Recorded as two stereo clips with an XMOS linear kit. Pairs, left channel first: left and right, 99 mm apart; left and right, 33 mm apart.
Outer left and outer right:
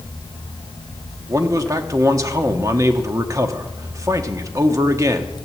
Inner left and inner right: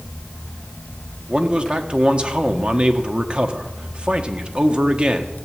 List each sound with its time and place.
1.3 s a man speaking: 35° right (ahead or behind), 1.3 m